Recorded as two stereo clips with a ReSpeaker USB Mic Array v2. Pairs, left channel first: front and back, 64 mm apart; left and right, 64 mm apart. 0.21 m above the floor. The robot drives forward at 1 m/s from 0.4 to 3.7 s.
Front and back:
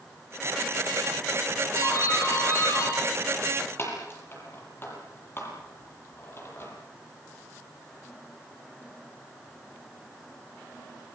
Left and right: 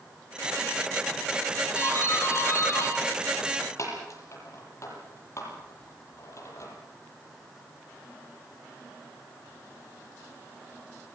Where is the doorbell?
40° left, 9 m; by 6.7 s 50° left, 7.5 m.